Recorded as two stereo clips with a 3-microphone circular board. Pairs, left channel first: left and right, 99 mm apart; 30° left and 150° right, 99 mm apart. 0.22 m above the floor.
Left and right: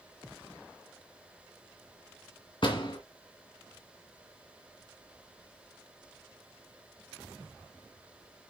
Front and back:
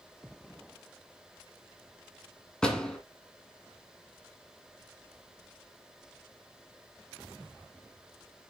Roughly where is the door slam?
Left.